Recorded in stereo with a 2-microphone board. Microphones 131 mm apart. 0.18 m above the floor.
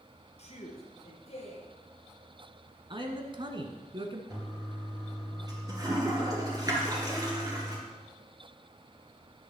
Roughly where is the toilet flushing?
Right.